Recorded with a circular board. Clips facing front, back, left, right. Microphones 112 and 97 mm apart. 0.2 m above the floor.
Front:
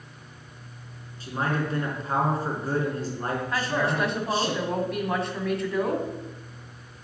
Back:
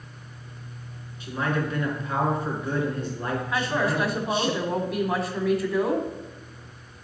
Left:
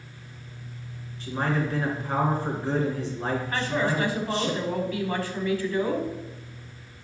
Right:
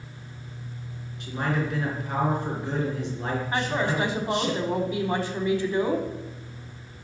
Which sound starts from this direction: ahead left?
A man speaking, at 1.2 s.